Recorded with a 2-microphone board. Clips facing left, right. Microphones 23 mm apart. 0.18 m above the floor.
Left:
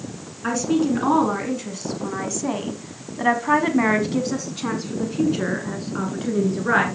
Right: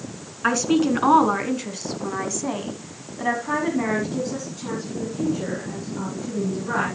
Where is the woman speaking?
30° right (ahead or behind), 1.8 m; by 6.8 s 60° left (ahead or behind), 2.5 m.